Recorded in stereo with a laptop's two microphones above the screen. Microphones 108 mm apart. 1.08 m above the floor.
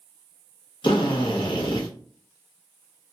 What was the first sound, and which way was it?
A drill, 50° left (ahead or behind).